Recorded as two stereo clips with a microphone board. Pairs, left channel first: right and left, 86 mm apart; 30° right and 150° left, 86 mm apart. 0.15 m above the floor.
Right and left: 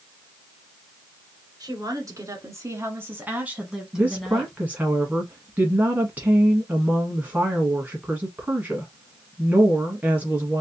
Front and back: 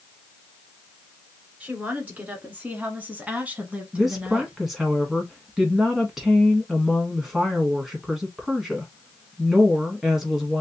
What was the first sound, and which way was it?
A woman speaking, 85° left.